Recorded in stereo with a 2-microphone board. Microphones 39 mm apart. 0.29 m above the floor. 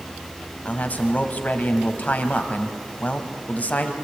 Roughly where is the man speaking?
Left.